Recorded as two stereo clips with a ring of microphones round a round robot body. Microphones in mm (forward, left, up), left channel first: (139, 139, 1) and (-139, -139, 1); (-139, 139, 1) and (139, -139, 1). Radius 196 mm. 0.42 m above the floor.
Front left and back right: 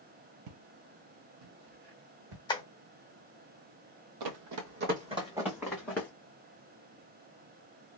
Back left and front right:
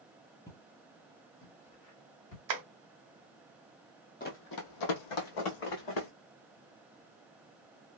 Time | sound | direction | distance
0.5 | footsteps | 145° right | 0.5 m
2.5 | tapping | 30° right | 0.6 m
4.2 | running footsteps | 155° right | 0.6 m